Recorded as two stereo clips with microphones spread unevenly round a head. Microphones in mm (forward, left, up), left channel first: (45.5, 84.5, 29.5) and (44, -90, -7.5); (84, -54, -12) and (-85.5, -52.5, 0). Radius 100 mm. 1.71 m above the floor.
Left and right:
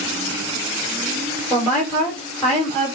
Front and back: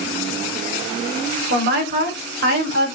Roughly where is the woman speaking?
Behind.